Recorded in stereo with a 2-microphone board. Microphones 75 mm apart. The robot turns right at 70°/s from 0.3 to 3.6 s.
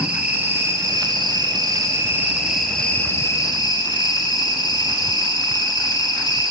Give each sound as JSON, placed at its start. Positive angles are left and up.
{"t": 0.0, "sound": "an insect", "azimuth_deg": -165, "distance_m": 3.0}